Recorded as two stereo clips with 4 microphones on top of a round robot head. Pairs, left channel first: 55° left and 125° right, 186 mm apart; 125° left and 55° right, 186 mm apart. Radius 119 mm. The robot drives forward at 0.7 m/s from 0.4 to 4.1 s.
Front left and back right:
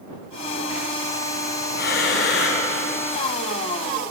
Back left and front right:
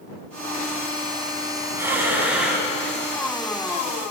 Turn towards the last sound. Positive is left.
turn(degrees=75)